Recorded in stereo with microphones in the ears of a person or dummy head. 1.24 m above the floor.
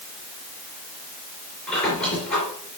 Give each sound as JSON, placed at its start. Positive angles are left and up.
{"t": 1.7, "sound": "a squeak", "side_deg": 10, "distance_m": 3.5}